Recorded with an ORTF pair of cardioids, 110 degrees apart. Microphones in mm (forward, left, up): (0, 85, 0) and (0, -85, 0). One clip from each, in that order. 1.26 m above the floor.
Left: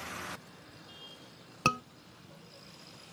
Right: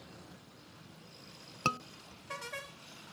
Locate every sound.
1.6 s a scream: 15° left